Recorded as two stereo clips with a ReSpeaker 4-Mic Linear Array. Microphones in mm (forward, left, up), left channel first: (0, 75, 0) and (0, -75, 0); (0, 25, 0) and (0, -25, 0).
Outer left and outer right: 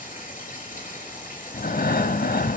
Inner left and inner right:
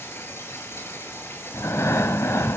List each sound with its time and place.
0.0 s running water: 65° left (ahead or behind), 4.5 m
1.5 s breathing: 75° left (ahead or behind), 0.6 m